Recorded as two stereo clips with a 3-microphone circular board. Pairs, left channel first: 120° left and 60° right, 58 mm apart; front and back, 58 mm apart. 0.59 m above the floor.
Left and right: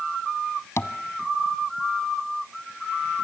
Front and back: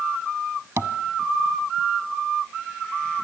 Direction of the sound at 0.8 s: 150° left.